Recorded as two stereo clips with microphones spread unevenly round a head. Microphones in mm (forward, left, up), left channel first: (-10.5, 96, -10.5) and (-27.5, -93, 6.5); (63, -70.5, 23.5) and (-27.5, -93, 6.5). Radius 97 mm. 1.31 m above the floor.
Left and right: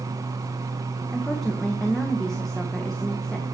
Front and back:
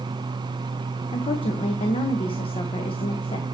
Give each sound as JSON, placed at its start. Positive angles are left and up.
{"t": 1.1, "sound": "a woman speaking", "azimuth_deg": 0, "distance_m": 1.4}